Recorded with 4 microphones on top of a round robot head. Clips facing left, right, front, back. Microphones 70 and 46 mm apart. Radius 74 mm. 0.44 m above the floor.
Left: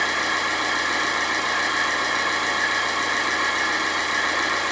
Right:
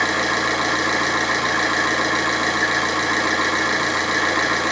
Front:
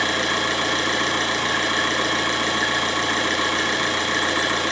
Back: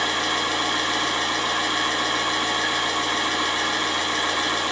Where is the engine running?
45° right, 1.8 m.